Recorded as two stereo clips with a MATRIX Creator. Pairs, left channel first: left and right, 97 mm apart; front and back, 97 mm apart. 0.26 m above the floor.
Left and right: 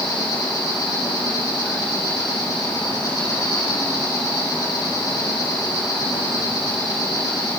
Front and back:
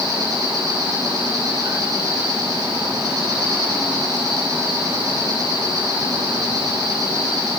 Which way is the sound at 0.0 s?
130° left.